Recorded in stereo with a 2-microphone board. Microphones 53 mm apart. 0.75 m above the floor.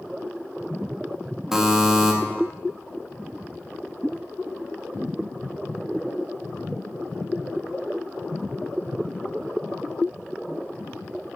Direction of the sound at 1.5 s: 5° right (ahead or behind).